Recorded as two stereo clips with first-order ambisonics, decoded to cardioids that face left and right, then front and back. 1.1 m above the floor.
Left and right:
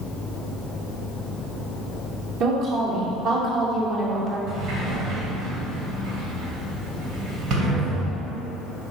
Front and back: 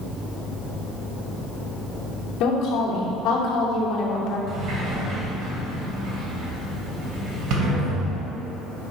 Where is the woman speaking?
45° right, 3 m.